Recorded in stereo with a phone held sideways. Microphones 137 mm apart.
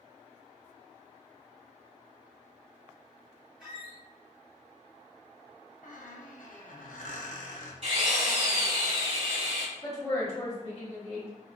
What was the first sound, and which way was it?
A squeak, centre (ahead or behind).